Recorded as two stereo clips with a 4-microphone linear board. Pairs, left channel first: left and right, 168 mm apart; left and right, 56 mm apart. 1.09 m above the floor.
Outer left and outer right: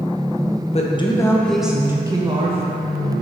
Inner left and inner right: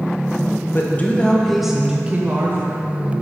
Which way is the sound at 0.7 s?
40° left (ahead or behind).